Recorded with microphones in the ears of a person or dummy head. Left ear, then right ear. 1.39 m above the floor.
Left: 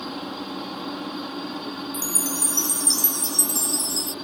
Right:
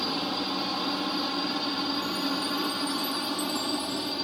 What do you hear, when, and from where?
0.0 s a helicopter: 20° right (ahead or behind)
1.9 s a chime: 50° left (ahead or behind)